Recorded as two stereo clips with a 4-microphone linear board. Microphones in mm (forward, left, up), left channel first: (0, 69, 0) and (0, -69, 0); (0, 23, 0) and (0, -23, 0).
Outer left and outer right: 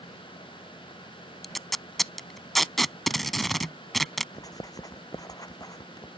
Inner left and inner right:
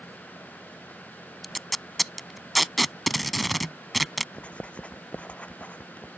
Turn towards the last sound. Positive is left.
turn(degrees=25)  # may be behind; listen again after turning